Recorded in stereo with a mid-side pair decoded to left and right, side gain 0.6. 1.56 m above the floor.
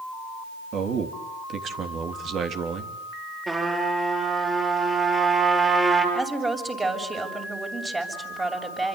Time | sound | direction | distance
0.7 | a man speaking | 50° right | 3.5 m
3.5 | a trumpet | 25° right | 7.5 m
6.2 | a woman speaking | 20° right | 7 m